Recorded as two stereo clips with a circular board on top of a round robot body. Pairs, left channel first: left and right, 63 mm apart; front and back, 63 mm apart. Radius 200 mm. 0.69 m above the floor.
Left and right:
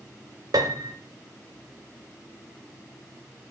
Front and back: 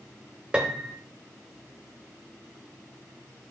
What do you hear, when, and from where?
0.5 s a piano: 110° right, 0.5 m